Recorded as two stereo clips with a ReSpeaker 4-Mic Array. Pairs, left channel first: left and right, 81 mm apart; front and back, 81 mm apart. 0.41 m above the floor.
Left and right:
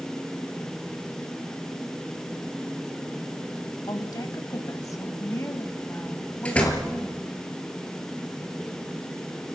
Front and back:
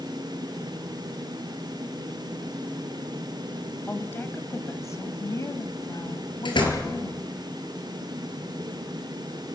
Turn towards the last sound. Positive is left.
turn(degrees=15)